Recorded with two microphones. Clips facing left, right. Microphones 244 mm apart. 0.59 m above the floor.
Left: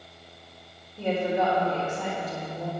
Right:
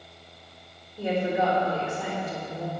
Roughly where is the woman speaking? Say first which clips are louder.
Even; centre.